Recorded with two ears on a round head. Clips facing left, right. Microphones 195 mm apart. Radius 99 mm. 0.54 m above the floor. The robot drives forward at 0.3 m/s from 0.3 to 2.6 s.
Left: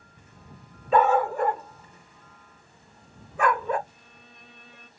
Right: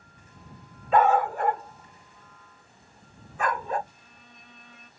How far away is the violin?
About 1.0 m.